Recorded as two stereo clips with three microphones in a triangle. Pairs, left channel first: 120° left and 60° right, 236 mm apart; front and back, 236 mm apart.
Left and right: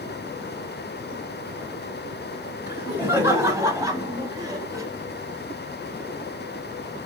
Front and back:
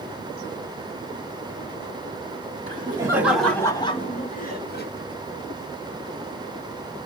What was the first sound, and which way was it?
Laughter, 140° right.